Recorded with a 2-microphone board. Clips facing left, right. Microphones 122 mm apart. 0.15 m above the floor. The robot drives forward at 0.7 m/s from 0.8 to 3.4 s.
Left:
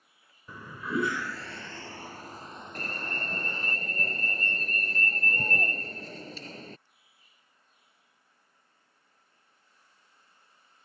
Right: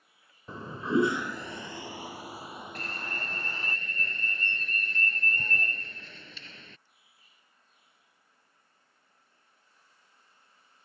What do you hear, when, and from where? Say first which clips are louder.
0.5 s a toilet flushing: right 5 dB; 30° right (ahead or behind); by 3.8 s 5° right (ahead or behind)
2.8 s an alarm: left 4 dB; 45° left (ahead or behind); by 6.8 s 40° left (ahead or behind)